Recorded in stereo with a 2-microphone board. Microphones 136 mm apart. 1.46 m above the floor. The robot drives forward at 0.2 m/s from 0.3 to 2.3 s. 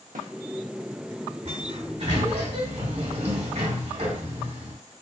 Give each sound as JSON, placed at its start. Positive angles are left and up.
{"t": 0.1, "sound": "a snare drum", "side_deg": -75, "distance_m": 1.2}
{"t": 1.4, "sound": "a sliding door", "side_deg": -60, "distance_m": 2.5}